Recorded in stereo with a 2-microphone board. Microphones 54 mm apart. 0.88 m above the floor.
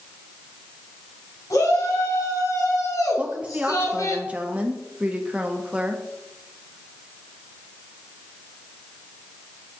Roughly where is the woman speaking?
Right.